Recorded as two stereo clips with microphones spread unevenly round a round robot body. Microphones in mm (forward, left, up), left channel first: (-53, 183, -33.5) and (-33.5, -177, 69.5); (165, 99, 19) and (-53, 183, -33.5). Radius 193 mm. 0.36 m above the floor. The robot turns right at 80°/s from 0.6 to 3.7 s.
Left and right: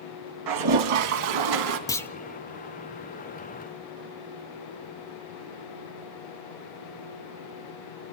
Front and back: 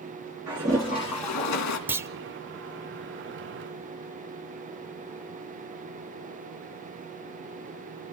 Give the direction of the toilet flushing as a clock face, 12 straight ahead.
4 o'clock.